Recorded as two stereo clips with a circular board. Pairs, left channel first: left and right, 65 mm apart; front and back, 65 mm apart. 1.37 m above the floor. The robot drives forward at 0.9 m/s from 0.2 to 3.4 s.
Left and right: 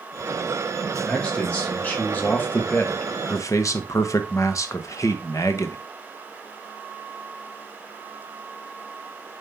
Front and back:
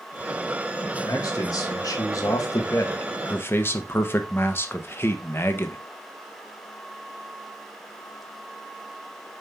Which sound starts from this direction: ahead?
A man speaking, at 1.0 s.